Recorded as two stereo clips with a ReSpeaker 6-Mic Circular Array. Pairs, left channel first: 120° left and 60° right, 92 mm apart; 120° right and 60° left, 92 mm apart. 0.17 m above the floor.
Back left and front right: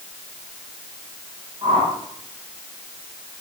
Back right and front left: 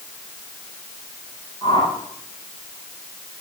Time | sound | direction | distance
1.6 | a whoosh | 80° right | 9 m